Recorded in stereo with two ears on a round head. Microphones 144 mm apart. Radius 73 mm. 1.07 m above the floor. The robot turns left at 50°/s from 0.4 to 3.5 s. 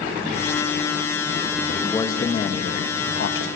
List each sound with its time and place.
1.7 s a man speaking: 175° left, 1.1 m; by 3.5 s 90° left, 1.1 m